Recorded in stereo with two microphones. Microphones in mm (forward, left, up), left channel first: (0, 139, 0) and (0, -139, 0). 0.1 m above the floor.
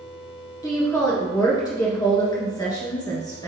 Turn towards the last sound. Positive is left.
turn(degrees=15)  # may be behind; listen again after turning